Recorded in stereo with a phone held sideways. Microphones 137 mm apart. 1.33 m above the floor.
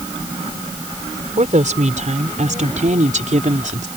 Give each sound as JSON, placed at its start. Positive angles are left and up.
{"t": 1.4, "sound": "a woman speaking", "side_deg": -65}